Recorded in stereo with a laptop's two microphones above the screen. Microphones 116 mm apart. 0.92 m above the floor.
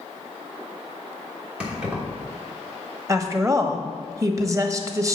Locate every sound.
1.6 s keys jangling: 10° right (ahead or behind), 1.3 m
3.1 s a woman speaking: 25° right (ahead or behind), 1.0 m